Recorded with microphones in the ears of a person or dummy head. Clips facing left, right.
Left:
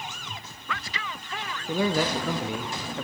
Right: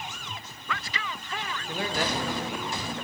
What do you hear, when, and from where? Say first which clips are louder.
1.7 s a man speaking: left 6 dB; 70° left (ahead or behind), 1.8 m; by 3.0 s 55° left (ahead or behind), 2.5 m